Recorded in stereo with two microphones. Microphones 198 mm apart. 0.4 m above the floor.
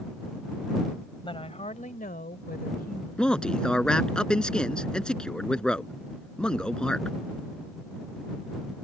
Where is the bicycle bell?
No bicycle bell in this recording.